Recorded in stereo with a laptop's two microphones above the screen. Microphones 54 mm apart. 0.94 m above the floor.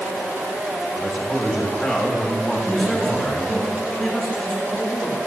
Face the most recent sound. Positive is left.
turn(degrees=15)  # may be behind; listen again after turning